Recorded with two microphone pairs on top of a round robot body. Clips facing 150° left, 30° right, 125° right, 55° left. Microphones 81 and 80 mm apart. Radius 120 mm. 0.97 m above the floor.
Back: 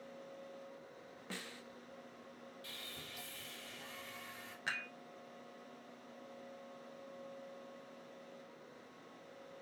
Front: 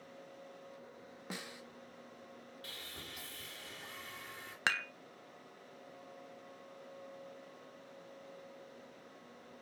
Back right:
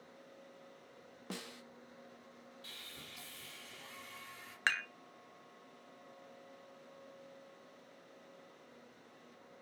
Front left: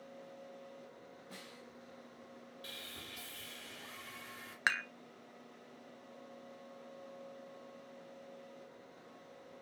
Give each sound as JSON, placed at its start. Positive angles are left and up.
{"t": 1.3, "sound": "a snare drum", "azimuth_deg": -105, "distance_m": 1.0}
{"t": 2.6, "sound": "sawing", "azimuth_deg": 10, "distance_m": 2.5}
{"t": 4.7, "sound": "dishes clattering", "azimuth_deg": -25, "distance_m": 1.0}